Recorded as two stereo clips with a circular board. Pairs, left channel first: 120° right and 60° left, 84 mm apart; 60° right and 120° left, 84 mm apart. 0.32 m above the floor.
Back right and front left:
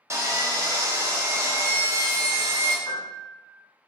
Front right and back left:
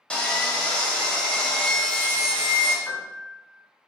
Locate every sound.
0.1 s sawing: 15° left, 0.5 m
2.9 s a piano: 140° right, 0.6 m